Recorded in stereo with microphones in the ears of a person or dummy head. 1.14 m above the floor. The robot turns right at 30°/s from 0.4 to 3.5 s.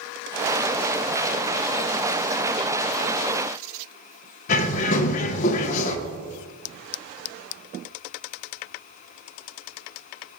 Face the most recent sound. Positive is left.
turn(degrees=40)  # may be behind; listen again after turning